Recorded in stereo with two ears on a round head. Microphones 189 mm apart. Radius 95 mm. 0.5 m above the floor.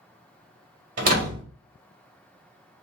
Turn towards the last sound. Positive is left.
turn(degrees=-40)  # may be behind; listen again after turning